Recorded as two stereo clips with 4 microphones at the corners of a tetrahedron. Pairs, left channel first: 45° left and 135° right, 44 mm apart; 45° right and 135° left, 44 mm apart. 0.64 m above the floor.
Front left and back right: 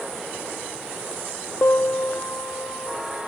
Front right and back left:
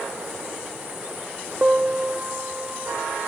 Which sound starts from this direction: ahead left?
A piano, at 1.6 s.